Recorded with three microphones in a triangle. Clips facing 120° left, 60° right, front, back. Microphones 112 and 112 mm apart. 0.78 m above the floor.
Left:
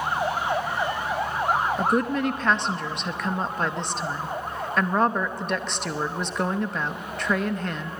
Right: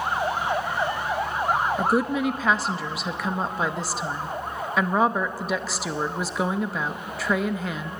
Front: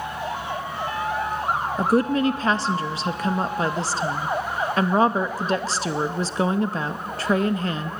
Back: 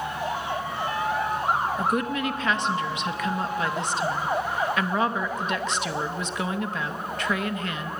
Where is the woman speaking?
20° left, 0.7 m.